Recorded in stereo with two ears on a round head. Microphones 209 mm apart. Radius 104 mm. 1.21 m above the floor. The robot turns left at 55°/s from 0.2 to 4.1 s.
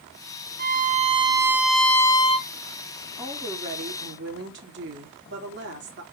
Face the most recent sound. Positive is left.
turn(degrees=-50)